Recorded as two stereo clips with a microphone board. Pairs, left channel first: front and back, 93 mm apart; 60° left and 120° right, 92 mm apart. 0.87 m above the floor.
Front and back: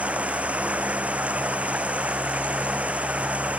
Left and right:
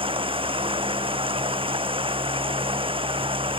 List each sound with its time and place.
0.0 s running water: 105° right